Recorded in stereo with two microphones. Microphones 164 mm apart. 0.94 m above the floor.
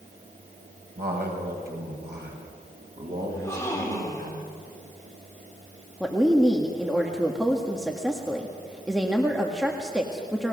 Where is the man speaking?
85° right, 5 m; by 4.3 s 80° right, 6.5 m.